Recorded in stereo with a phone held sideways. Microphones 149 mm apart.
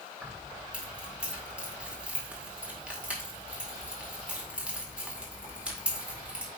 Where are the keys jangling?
10° right (ahead or behind), 2 m.